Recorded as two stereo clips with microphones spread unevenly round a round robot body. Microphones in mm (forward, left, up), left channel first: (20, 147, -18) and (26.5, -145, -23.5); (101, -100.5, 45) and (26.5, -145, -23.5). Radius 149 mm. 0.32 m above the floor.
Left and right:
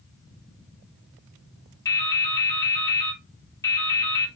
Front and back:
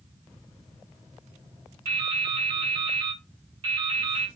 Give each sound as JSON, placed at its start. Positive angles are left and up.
{"t": 1.9, "sound": "dripping", "azimuth_deg": 170, "distance_m": 3.5}